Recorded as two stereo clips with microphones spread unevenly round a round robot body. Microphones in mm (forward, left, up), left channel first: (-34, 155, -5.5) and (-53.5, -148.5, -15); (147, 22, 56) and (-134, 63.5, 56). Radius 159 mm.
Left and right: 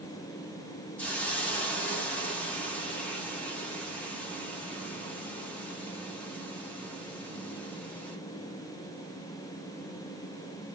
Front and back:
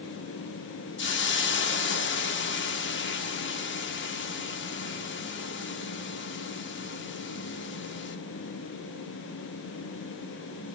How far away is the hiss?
About 0.7 m.